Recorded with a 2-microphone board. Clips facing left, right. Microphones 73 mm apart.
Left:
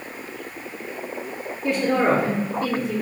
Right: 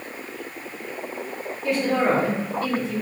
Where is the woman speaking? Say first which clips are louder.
Left 1 dB; 25° left (ahead or behind), 1.3 m.